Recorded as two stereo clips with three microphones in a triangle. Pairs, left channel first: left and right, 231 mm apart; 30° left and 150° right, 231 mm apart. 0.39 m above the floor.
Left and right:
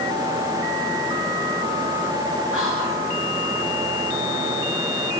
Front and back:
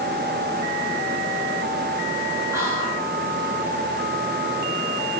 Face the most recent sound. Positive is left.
turn(degrees=-75)